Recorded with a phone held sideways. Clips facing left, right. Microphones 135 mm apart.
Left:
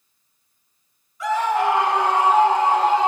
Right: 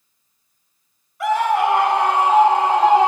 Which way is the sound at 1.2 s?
65° right (ahead or behind).